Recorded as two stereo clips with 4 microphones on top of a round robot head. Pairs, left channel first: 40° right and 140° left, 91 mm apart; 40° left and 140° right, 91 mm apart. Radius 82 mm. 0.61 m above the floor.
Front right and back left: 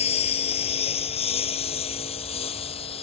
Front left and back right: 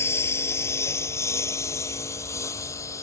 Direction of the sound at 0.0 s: 25° right.